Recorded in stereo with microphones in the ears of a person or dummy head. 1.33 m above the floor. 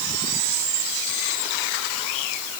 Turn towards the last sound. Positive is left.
No sound to turn to.